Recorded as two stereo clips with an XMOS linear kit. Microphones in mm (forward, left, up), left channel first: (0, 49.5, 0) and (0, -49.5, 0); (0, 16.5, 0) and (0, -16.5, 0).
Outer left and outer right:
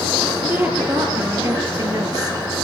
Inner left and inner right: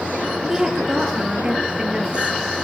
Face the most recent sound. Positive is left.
turn(degrees=-40)  # may be behind; listen again after turning